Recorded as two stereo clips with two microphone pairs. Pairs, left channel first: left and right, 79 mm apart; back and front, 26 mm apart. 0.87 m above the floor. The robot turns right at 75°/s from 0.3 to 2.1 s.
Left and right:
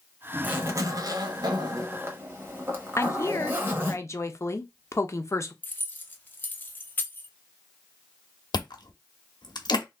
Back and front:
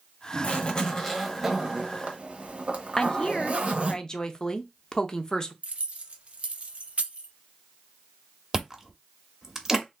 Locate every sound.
0.4 s a zipper: 155° right, 1.0 m; by 4.0 s 30° right, 1.0 m
3.0 s a woman speaking: 125° left, 0.6 m
5.6 s keys jangling: 25° left, 0.6 m
8.5 s chewing: 65° left, 0.9 m